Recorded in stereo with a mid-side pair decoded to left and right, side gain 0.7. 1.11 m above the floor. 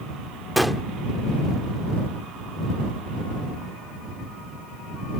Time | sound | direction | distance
0.6 | a gunshot | straight ahead | ?